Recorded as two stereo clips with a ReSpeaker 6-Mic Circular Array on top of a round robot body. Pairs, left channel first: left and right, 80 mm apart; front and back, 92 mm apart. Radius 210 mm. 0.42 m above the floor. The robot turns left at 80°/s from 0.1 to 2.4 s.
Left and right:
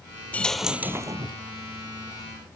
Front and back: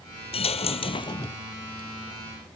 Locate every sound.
0.3 s a dropped coin: 20° left; by 1.4 s 65° right